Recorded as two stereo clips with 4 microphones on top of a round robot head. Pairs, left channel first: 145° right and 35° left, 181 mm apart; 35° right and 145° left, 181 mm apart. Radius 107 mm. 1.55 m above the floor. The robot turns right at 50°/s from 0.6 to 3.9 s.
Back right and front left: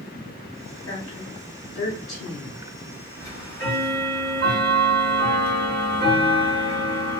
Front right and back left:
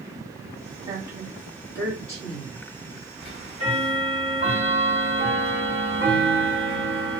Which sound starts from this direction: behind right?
A woman speaking, at 0.9 s.